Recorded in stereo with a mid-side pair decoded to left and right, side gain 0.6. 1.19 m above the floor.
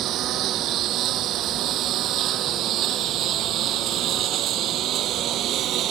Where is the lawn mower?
60° right.